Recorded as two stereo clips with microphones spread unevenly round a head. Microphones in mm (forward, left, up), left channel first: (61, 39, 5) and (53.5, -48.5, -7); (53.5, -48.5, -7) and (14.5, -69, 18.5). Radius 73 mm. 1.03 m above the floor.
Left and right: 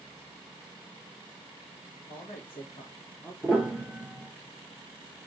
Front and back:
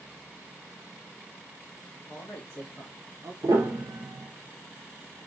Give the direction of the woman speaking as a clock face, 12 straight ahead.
10 o'clock.